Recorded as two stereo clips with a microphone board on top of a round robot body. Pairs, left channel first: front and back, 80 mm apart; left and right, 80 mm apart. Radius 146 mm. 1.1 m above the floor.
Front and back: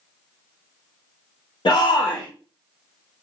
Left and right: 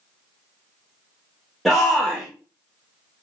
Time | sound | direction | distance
1.6 | a shout | 5° left | 1.6 m